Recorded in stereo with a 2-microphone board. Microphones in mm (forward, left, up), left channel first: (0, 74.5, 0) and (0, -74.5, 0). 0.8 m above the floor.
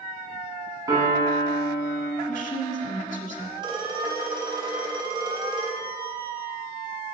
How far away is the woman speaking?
About 1.9 m.